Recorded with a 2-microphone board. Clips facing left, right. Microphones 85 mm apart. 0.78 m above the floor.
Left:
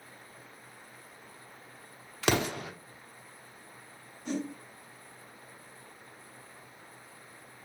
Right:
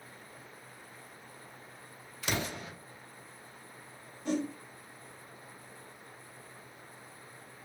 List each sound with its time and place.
2.2 s an explosion: 75° left (ahead or behind), 0.6 m
4.2 s a whoosh: 65° right (ahead or behind), 2 m